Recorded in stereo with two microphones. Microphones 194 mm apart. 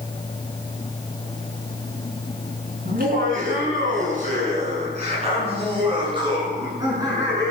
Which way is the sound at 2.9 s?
50° right (ahead or behind).